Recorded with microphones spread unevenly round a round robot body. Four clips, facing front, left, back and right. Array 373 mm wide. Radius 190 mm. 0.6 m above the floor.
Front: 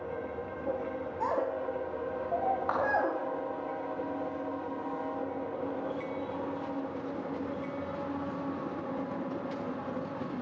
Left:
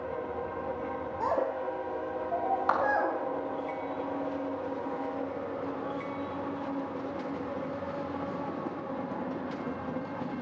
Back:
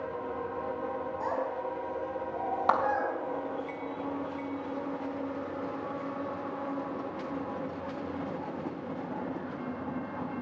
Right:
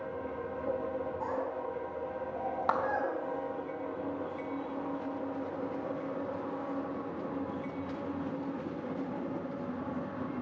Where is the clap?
155° right, 2.5 m.